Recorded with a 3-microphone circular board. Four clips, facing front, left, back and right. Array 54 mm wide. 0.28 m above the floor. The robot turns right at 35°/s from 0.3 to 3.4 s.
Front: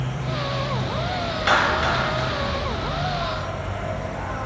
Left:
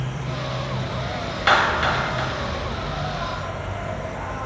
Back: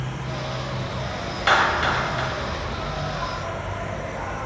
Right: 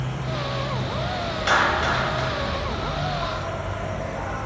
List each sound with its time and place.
0.0 s an insect: 60° left, 3 m; by 4.5 s 170° left, 3 m
1.5 s a clap: 105° left, 0.8 m; by 2.3 s 135° left, 0.8 m